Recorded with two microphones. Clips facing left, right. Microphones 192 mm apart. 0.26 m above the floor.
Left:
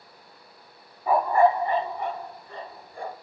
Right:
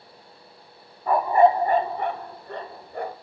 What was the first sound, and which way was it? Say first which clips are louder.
A dog barking: right 2 dB; 10° left (ahead or behind).